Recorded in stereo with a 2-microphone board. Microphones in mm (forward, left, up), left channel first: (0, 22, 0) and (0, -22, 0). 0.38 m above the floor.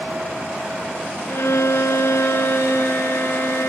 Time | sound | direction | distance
1.3 | a violin | 85° left | 1.7 m